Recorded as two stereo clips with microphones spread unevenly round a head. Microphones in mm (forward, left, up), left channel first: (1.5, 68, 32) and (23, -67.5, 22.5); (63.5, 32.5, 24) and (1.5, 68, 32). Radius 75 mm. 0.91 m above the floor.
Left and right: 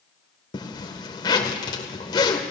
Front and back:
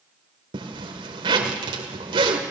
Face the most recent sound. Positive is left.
turn(degrees=160)